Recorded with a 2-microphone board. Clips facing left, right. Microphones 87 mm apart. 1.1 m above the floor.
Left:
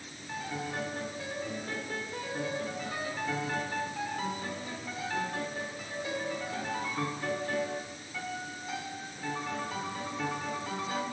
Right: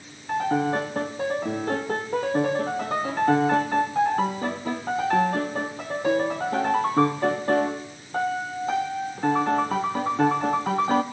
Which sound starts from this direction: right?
A piano, at 0.3 s.